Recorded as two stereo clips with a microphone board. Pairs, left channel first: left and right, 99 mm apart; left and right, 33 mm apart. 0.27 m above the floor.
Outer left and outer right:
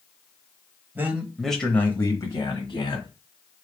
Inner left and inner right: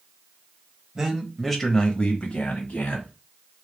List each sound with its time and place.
0.9 s a man speaking: 20° right (ahead or behind), 1.0 m; by 3.1 s 55° left (ahead or behind), 1.6 m